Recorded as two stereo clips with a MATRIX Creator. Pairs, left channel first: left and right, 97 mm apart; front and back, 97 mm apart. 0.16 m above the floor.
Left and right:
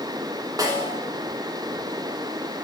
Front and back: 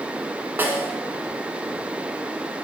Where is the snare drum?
120° right, 0.9 m.